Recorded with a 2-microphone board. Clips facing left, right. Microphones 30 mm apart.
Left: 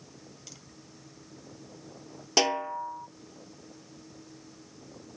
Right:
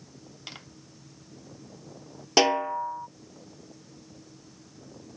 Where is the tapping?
50° right (ahead or behind).